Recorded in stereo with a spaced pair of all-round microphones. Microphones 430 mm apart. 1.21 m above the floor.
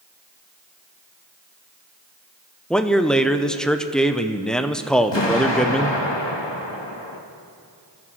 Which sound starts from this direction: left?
An explosion, at 5.1 s.